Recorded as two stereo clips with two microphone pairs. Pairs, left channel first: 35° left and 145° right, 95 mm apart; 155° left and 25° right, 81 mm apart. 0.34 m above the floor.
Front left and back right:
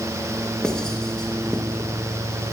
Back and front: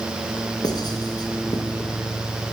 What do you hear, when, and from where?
0.6 s writing: 120° left, 2.5 m